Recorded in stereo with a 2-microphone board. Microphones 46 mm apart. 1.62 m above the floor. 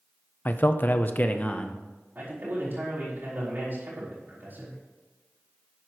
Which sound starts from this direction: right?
A man speaking, at 2.1 s.